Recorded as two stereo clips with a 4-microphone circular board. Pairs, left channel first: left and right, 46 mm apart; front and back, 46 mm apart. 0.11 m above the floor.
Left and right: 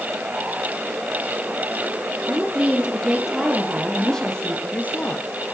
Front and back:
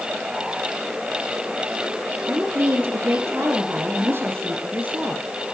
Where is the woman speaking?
150° right, 3 m; by 5.2 s 130° left, 2.5 m.